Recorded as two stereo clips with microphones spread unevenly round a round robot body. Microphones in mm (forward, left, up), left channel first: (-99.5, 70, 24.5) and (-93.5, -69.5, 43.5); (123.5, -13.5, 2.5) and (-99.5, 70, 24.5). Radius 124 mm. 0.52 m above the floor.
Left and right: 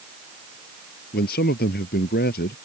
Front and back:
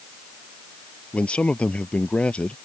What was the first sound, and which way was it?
A man speaking, 65° left.